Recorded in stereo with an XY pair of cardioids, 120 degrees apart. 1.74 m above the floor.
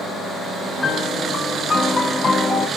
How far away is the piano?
About 0.6 m.